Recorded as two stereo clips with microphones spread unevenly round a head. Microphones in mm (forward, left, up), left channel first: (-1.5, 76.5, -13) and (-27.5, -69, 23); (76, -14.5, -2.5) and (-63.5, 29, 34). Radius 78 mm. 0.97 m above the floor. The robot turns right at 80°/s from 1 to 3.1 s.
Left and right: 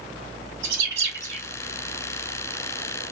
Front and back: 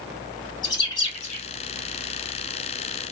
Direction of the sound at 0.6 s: 75° right.